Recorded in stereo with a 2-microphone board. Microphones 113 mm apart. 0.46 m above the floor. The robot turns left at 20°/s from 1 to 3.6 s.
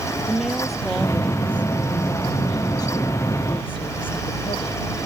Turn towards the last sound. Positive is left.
turn(degrees=130)